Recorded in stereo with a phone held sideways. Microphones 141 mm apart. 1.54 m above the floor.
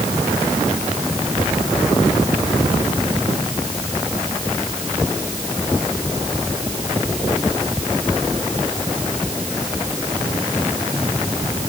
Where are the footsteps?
No footsteps in this recording.